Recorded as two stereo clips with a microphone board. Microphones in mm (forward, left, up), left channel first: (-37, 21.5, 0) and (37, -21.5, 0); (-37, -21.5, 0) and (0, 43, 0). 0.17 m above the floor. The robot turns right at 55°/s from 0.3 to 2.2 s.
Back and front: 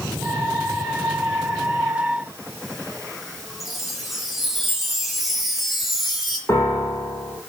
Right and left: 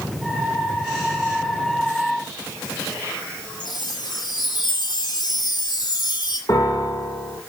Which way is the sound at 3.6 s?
115° right.